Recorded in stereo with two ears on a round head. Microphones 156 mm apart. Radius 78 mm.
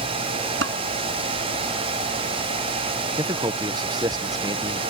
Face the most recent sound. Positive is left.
turn(degrees=-25)  # may be behind; listen again after turning